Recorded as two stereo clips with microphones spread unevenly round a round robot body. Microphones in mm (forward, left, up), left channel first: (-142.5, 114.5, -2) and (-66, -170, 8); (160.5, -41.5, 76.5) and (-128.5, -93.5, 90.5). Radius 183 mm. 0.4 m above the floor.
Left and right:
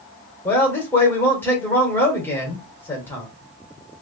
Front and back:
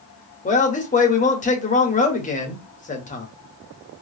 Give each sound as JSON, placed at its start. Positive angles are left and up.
{"t": 0.5, "sound": "a man speaking", "azimuth_deg": 30, "distance_m": 1.4}